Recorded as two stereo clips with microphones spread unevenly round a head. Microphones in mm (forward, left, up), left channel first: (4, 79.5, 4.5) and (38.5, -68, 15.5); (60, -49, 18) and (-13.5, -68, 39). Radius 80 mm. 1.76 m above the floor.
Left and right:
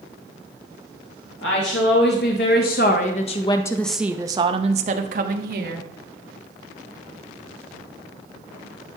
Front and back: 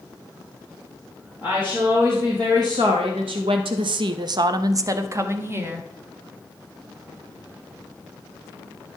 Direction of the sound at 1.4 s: 120° left.